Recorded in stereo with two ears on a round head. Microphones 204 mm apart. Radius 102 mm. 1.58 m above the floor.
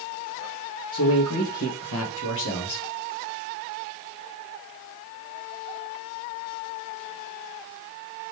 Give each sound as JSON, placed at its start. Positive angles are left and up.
{"t": 0.9, "sound": "a man speaking", "side_deg": 60, "distance_m": 1.6}